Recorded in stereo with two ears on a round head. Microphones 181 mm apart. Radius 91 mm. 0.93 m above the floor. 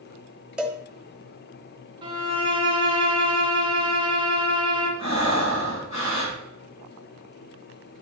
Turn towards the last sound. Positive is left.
turn(degrees=30)  # may be behind; listen again after turning